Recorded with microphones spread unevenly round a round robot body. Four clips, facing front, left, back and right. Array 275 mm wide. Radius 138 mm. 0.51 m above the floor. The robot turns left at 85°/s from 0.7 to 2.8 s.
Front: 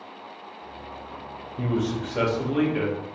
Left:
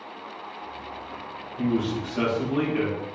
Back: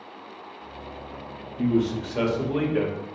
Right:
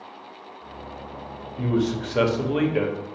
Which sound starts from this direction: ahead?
A man speaking, at 1.6 s.